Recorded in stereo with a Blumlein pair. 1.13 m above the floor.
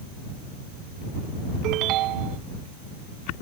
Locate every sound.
1.6 s a ringtone: 35° right